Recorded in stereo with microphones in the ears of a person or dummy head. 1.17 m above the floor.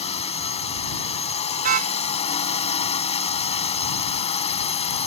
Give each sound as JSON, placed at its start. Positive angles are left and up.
{"t": 0.0, "sound": "a drone", "side_deg": 30}
{"t": 1.6, "sound": "a car horn", "side_deg": -55}